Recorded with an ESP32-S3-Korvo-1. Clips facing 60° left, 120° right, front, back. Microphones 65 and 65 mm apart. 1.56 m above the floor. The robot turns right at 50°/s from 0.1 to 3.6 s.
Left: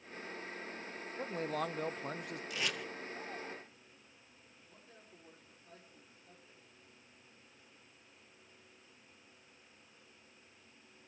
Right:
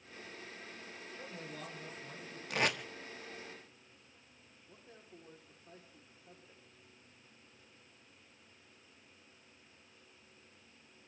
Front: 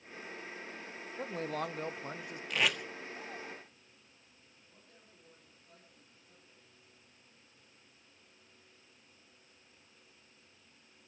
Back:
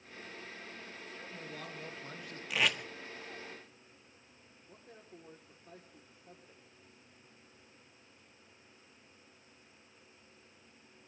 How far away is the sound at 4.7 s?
About 3.5 m.